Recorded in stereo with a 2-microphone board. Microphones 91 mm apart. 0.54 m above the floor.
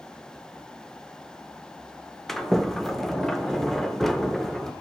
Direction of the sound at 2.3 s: 5° left (ahead or behind).